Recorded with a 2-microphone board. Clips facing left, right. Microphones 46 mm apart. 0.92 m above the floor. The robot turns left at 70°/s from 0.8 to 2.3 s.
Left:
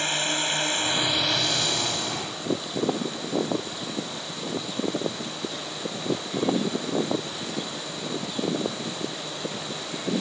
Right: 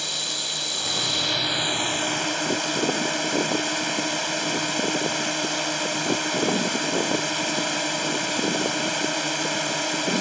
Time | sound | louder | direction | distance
0.0 | a drone | left 5 dB | 40° left | ?